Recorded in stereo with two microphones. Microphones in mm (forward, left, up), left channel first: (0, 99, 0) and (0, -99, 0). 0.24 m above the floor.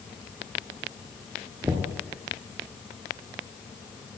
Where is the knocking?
15° right (ahead or behind), 3 m.